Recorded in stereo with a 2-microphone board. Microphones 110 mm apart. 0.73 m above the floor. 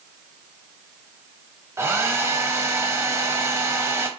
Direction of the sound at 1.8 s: 25° right (ahead or behind).